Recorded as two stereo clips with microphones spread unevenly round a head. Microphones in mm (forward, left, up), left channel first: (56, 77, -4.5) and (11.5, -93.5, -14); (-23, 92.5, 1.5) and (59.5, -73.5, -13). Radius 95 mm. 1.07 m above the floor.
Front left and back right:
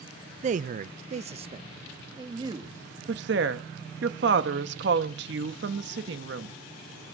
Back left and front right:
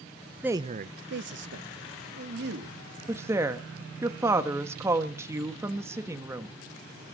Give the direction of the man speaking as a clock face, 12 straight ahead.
5 o'clock.